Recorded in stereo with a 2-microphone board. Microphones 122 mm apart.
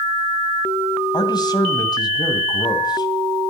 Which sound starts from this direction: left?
A man speaking, at 1.1 s.